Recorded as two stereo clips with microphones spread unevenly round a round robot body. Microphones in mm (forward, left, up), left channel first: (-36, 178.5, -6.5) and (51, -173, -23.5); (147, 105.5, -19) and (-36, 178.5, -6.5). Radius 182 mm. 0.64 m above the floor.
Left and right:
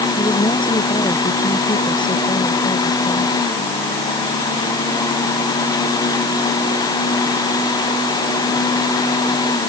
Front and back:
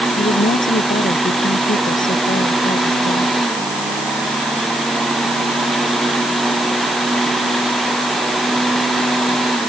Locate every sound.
0.2 s a woman speaking: 25° left